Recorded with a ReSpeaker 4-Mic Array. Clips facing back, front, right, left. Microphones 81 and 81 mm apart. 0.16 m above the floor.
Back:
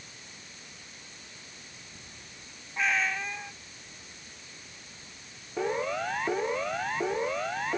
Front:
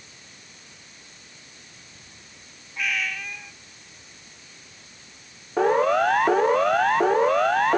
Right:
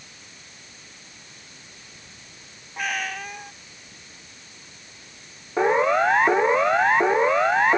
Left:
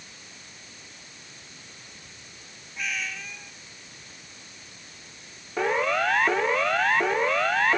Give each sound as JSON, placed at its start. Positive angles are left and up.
{"t": 2.8, "sound": "a cat meowing", "azimuth_deg": -120}
{"t": 5.6, "sound": "a siren", "azimuth_deg": -25}